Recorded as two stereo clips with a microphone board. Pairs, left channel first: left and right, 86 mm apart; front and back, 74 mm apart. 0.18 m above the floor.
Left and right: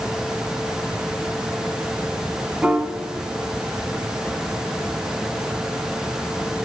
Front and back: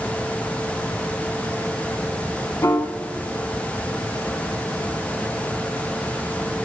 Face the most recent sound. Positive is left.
turn(degrees=-20)